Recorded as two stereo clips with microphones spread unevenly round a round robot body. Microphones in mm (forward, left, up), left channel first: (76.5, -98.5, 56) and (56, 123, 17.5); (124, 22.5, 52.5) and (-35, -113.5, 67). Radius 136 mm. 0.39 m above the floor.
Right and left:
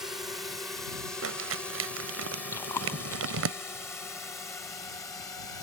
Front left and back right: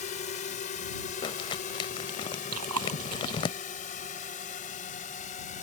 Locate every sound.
0.0 s a drone: 20° left; by 5.6 s 5° right
1.2 s crumpling: 110° left
2.5 s chewing: 165° right